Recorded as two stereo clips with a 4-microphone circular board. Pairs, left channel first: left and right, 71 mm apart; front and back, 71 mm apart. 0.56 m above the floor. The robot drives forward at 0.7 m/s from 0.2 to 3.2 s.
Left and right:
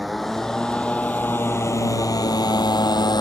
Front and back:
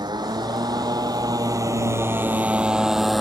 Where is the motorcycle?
Straight behind; by 3.2 s 90° left.